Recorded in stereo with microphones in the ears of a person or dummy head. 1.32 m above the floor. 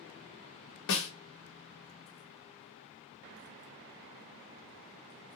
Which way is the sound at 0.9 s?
60° left (ahead or behind).